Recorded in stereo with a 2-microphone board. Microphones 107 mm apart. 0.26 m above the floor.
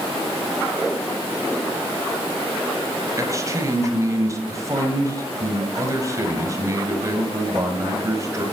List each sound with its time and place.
3.2 s a man speaking: 30° right (ahead or behind), 1.4 m